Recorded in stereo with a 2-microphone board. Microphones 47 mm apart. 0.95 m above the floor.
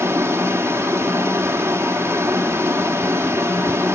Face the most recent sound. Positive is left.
turn(degrees=-85)